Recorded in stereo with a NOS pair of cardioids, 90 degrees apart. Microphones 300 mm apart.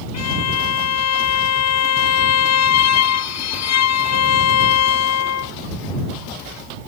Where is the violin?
60° left.